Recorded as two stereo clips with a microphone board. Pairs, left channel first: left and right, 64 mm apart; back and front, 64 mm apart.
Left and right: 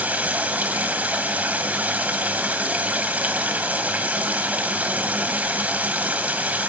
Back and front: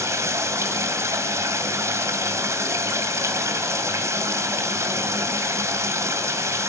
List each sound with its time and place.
0.0 s running water: 25° right, 1.9 m